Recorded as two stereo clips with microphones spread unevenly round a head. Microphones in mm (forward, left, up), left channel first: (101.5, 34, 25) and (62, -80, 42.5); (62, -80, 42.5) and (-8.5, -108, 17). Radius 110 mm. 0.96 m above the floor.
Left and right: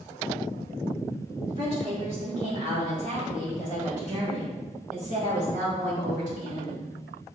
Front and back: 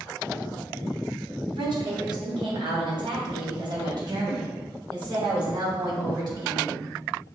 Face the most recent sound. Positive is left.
turn(degrees=-130)